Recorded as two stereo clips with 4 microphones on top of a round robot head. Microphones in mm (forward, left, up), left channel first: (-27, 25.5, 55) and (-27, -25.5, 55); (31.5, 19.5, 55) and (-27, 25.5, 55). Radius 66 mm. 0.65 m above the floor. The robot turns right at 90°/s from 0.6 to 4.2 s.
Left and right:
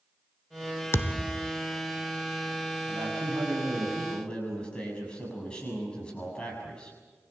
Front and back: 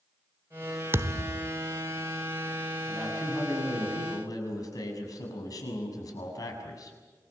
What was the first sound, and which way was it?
A thud, 125° left.